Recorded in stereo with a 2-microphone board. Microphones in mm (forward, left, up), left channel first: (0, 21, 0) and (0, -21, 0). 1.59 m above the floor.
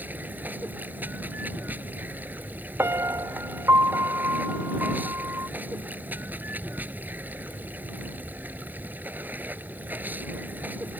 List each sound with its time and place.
0.0 s running water: 45° right (ahead or behind)
2.8 s a piano: 80° right